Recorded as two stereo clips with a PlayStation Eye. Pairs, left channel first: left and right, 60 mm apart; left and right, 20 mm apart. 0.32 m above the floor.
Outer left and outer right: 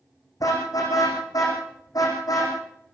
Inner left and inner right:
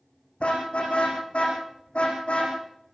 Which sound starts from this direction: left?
A car horn, at 0.4 s.